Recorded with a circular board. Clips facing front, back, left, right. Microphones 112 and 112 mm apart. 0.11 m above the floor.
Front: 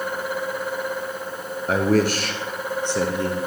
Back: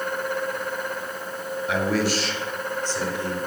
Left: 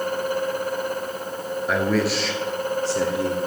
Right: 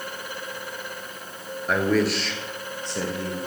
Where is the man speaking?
Straight ahead, 1.5 m; by 3.5 s 5° left, 3 m.